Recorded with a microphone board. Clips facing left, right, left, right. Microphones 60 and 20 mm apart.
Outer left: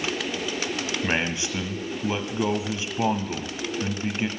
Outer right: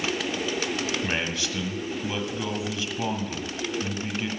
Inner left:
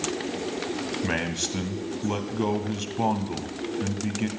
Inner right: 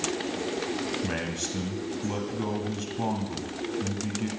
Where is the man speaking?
25° left (ahead or behind), 1.4 m.